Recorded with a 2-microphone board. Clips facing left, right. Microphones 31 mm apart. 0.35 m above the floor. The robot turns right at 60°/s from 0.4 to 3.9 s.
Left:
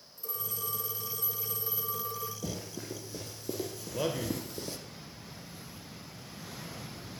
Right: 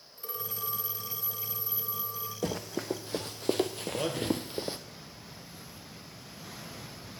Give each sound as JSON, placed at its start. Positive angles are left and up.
{"t": 0.2, "sound": "a phone ringing", "azimuth_deg": -45, "distance_m": 3.0}
{"t": 2.4, "sound": "running footsteps", "side_deg": -65, "distance_m": 1.5}
{"t": 3.9, "sound": "a man speaking", "side_deg": 5, "distance_m": 1.1}